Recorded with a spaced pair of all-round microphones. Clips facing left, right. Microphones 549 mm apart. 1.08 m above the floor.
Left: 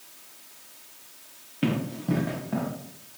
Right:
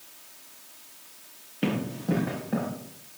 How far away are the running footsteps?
About 8.5 m.